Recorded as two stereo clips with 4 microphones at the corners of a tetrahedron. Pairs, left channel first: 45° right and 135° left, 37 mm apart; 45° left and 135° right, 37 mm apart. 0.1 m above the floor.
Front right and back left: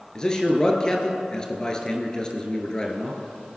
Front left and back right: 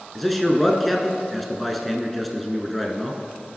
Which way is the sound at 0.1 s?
40° right.